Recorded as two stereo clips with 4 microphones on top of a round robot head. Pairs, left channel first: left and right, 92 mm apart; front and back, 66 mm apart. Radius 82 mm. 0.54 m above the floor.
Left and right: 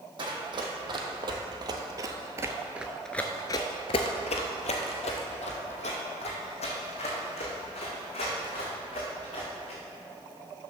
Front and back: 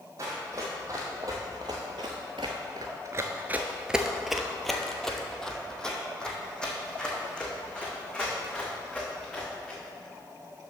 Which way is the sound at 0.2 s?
125° right.